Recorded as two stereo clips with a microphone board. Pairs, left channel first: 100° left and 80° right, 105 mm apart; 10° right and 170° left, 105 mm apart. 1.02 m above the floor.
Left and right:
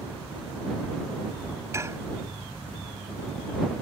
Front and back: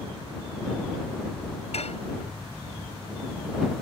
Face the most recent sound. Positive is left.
turn(degrees=-15)